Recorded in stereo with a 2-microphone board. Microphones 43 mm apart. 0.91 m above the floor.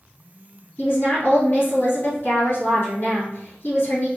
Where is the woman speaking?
55° left (ahead or behind), 1.8 m.